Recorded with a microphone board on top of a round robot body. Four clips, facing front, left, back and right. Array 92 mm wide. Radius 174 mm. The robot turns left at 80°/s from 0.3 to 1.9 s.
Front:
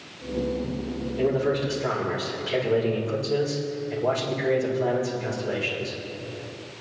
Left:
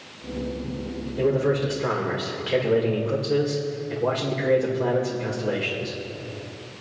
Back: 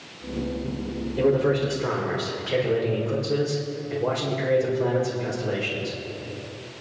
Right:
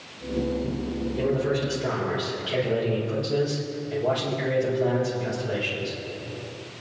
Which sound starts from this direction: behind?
A man speaking, at 1.2 s.